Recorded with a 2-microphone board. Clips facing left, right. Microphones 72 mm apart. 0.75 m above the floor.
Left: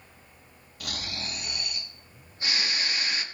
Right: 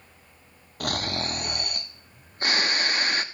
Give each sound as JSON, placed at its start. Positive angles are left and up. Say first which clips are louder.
{"t": 0.8, "sound": "snoring", "louder": "right 9 dB", "side_deg": -50, "distance_m": 0.7}